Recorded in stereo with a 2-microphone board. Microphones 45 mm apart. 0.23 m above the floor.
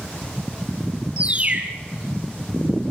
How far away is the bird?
About 1.5 m.